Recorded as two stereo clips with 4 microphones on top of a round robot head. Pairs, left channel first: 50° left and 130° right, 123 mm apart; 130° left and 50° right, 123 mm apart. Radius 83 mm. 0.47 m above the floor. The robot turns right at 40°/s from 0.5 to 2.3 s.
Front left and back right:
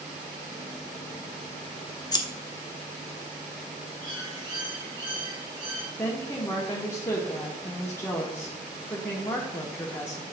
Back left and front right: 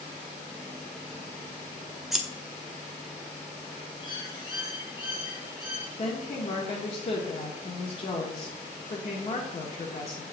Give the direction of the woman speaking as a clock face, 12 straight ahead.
8 o'clock.